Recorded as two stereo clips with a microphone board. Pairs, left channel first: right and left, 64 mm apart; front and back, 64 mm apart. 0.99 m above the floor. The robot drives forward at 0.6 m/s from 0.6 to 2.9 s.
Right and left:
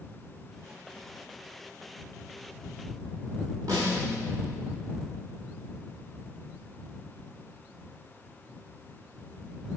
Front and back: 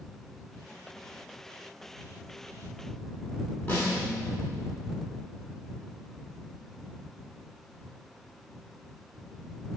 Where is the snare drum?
65° left, 8 m.